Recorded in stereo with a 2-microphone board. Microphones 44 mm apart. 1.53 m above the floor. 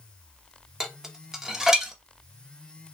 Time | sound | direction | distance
0.8 | dishes clattering | 15° right (ahead or behind) | 0.6 m